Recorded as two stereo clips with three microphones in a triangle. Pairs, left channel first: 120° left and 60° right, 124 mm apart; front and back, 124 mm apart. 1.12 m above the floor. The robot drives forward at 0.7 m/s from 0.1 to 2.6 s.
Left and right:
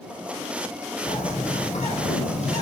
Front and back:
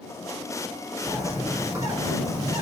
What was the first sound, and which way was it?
A bird, 105° left.